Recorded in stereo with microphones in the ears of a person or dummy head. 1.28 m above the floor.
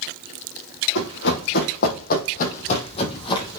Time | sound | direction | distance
0.9 | running footsteps | 65° left (ahead or behind) | 3 m